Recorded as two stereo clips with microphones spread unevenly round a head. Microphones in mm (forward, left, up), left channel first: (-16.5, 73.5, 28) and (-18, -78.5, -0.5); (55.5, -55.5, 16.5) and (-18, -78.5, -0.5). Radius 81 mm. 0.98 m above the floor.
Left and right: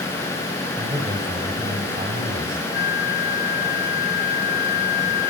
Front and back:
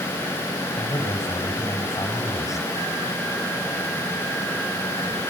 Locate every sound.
0.8 s a man speaking: 30° right, 5.5 m
2.7 s a flute: 130° left, 2.5 m